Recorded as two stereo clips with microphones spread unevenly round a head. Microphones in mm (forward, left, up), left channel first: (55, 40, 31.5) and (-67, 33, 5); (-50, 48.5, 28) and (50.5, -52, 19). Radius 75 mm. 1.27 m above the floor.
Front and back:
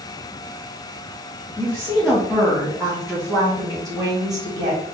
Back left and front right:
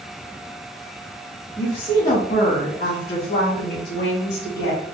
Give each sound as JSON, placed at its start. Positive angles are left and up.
{"t": 1.6, "sound": "a woman speaking", "azimuth_deg": 70, "distance_m": 1.7}